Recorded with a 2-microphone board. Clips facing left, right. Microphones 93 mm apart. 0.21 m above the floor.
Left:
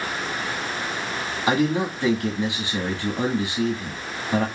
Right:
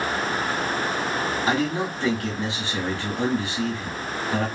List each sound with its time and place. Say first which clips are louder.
1.5 s a man speaking: left 6 dB; 15° left (ahead or behind), 1.8 m